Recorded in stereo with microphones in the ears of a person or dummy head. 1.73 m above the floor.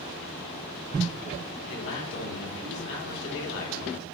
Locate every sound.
1.7 s a man speaking: 75° left (ahead or behind), 2.5 m